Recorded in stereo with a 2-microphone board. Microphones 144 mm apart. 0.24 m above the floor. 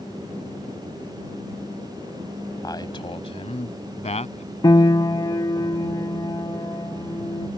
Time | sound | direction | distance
2.6 | a man speaking | 25° left (ahead or behind) | ?
4.6 | a piano | 30° left (ahead or behind) | ?